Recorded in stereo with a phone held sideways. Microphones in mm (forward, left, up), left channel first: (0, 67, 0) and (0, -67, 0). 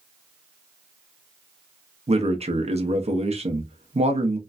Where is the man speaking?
50° right (ahead or behind), 0.7 m.